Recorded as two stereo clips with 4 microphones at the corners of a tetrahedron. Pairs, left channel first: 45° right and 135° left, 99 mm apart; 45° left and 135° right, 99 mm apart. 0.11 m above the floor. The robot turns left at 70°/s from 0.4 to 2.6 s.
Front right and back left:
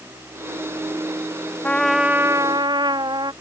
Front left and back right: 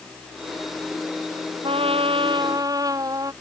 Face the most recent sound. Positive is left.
turn(degrees=175)